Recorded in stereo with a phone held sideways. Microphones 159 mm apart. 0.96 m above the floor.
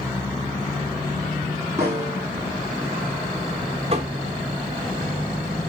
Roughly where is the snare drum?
Centre.